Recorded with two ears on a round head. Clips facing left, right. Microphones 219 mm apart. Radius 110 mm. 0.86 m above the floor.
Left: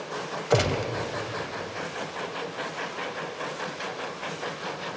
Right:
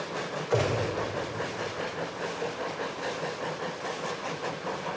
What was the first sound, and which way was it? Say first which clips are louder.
A gunshot: left 2 dB; 55° left (ahead or behind).